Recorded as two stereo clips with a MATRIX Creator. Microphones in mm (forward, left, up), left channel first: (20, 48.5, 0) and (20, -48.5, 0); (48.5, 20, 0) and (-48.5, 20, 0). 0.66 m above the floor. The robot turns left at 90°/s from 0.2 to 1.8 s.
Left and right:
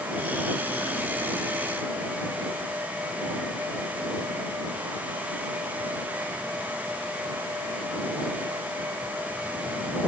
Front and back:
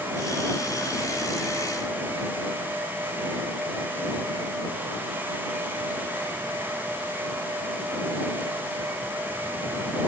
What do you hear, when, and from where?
Only background noise.